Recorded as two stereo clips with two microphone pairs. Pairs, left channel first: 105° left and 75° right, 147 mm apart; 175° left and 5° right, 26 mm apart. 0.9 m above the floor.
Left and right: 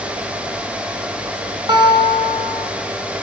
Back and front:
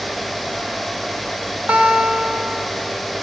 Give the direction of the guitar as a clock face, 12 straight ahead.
12 o'clock.